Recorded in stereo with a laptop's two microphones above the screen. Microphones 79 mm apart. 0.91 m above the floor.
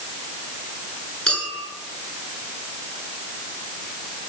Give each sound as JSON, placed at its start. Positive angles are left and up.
{"t": 1.3, "sound": "a clink", "side_deg": 15, "distance_m": 7.5}